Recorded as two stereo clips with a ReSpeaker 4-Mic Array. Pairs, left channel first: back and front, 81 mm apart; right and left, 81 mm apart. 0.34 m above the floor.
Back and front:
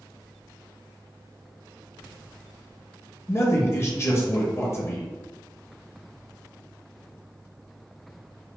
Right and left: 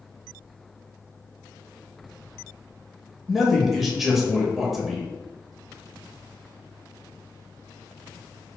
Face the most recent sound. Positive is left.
turn(degrees=175)